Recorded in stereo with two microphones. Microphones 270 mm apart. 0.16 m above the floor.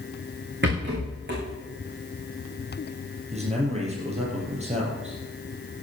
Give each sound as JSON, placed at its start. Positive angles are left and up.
{"t": 0.6, "sound": "a rattle", "side_deg": -40, "distance_m": 5.5}
{"t": 3.3, "sound": "a man speaking", "side_deg": -25, "distance_m": 4.0}